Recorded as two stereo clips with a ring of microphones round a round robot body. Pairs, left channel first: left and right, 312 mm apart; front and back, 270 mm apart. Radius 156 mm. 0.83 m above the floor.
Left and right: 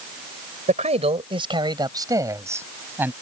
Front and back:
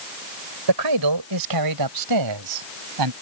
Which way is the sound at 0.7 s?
160° right.